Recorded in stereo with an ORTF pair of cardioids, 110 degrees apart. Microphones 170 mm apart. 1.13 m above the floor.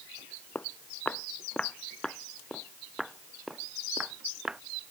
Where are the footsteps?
10° left; by 4.6 s 5° right.